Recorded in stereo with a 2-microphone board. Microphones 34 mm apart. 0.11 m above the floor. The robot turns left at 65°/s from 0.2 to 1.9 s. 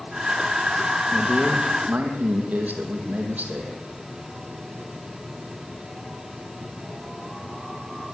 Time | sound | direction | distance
1.1 | a man speaking | 5° right | 5.5 m